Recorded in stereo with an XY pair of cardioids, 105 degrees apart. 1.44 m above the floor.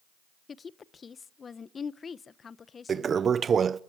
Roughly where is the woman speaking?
Ahead left.